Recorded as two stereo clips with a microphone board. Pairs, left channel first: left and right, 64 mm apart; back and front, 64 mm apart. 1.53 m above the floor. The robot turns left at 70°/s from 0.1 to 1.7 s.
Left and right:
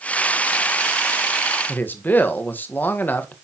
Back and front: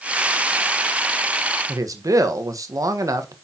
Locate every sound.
1.7 s a man speaking: 30° left, 1.4 m